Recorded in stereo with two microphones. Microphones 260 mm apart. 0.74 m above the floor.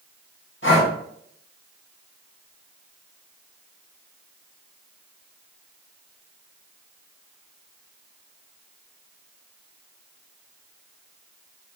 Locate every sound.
0.6 s breathing: 50° left (ahead or behind), 1.2 m